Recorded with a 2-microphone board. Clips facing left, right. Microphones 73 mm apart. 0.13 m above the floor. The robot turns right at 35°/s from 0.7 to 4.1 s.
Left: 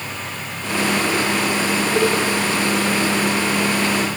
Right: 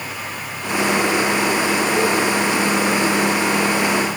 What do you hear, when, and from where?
1.9 s a cowbell: 30° left (ahead or behind), 7 m; by 2.1 s 25° left (ahead or behind), 7 m